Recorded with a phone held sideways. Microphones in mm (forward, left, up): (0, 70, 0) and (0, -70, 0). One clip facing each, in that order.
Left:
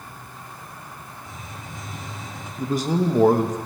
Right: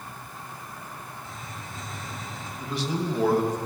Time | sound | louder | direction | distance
1.2 | a hiss | left 1 dB | 15° left (ahead or behind) | 1.9 m
2.6 | a man speaking | left 7 dB | 45° left (ahead or behind) | 0.8 m